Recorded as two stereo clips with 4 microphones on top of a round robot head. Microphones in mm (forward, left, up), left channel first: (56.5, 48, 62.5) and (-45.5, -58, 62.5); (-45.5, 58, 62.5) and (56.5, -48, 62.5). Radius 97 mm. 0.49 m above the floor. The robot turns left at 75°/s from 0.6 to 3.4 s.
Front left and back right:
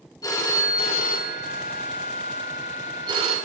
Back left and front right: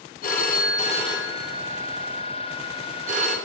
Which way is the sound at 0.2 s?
110° left.